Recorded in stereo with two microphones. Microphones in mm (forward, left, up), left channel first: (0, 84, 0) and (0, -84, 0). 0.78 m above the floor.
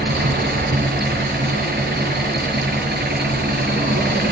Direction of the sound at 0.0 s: 85° right.